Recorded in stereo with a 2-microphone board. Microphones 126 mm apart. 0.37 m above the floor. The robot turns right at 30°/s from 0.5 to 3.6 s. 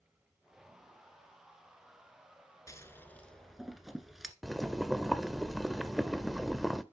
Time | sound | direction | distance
2.7 | scissors | 25° left (ahead or behind) | 1.2 m
4.4 | boiling | centre (ahead or behind) | 0.7 m